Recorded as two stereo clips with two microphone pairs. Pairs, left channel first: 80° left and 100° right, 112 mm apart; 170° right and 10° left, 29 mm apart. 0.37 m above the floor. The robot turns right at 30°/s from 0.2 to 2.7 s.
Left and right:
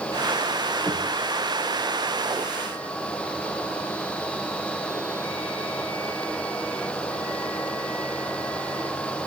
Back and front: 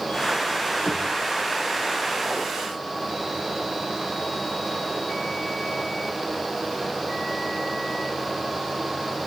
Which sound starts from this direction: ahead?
Knocking, at 0.8 s.